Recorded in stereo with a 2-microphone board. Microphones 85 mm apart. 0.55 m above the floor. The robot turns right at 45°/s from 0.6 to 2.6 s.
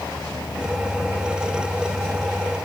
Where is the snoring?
No snoring in this recording.